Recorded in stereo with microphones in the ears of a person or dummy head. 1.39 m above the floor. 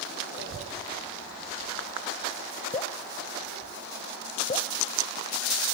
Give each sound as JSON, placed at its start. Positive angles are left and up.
{"t": 0.4, "sound": "a child speaking", "side_deg": -60, "distance_m": 0.6}
{"t": 2.7, "sound": "dripping", "side_deg": 25, "distance_m": 0.5}